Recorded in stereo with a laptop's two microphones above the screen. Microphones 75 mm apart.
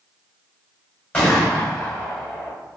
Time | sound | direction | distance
1.1 | a gunshot | 10° left (ahead or behind) | 1.3 m